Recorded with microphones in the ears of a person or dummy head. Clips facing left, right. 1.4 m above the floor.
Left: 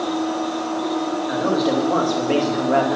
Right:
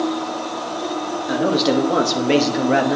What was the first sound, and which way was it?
A man speaking, 35° right (ahead or behind).